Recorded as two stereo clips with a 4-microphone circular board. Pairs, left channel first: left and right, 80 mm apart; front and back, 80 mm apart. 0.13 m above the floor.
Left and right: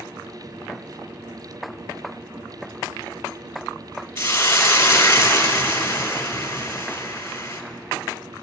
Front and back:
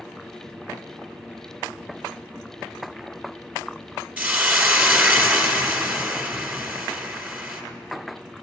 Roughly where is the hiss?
Behind left.